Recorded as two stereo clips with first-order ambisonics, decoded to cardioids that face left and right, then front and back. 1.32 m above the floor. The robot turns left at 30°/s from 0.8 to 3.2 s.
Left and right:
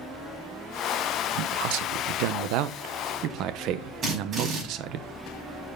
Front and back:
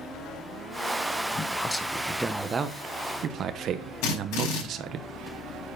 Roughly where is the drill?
Ahead right.